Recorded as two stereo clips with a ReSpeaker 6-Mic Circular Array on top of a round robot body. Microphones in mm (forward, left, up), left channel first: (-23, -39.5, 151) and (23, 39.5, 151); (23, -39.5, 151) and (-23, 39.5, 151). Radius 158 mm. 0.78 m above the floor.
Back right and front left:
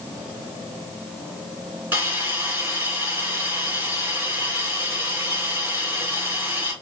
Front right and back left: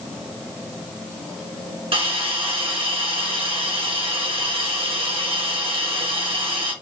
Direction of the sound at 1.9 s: 125° left.